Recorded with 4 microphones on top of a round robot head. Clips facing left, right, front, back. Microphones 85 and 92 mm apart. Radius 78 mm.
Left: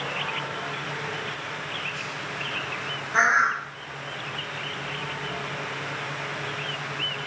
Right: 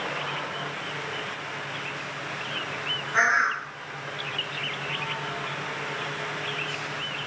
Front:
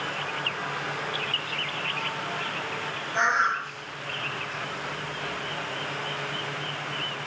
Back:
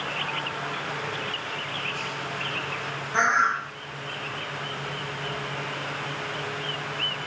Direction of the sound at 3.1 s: 160° left.